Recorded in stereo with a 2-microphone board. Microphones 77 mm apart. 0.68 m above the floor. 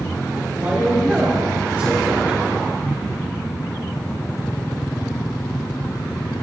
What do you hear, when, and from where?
0.6 s a man speaking: 30° right (ahead or behind), 1.5 m; by 2.5 s 20° right (ahead or behind), 2.5 m